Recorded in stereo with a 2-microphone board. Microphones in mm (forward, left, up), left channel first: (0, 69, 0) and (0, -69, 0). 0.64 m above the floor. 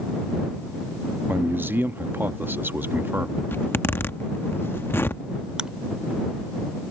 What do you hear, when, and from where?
1.3 s a man speaking: 15° right (ahead or behind)
3.5 s a zipper: 15° left (ahead or behind)
5.6 s chewing: 5° right (ahead or behind)